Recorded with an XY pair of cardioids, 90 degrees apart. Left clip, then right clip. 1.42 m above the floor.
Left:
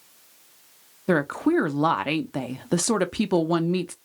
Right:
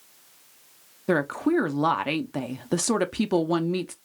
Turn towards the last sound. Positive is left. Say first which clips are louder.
# left 1 dB
turn(degrees=10)